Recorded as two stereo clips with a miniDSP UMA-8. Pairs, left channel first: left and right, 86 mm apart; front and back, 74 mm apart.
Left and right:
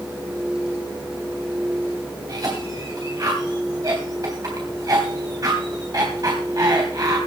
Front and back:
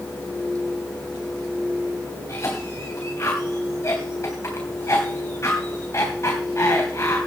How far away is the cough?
About 3 m.